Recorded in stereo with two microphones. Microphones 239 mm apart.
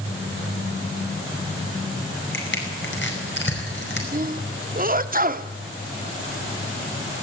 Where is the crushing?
50° left (ahead or behind), 5 m.